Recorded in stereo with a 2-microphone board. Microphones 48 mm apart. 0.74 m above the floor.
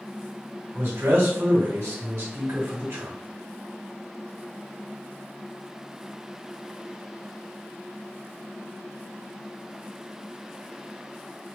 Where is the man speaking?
65° right (ahead or behind), 1.4 m.